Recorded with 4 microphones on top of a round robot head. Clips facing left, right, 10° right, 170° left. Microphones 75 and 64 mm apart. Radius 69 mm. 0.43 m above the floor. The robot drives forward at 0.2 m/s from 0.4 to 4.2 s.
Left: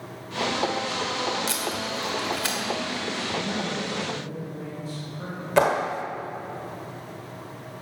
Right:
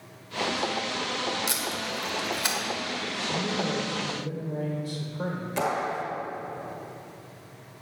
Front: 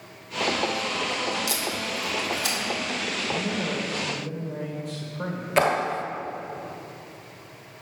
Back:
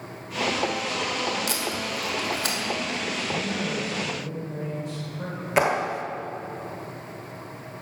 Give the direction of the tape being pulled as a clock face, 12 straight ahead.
5 o'clock.